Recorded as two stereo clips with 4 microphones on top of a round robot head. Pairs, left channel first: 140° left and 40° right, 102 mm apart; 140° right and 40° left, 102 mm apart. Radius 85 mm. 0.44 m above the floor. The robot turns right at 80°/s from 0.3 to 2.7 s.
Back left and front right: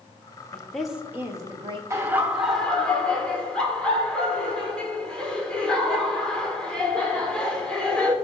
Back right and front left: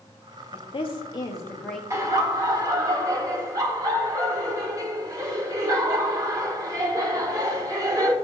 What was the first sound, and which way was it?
A woman speaking, 155° right.